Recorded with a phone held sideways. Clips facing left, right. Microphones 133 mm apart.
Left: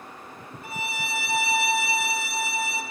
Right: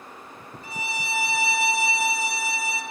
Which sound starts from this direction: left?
A violin, at 0.6 s.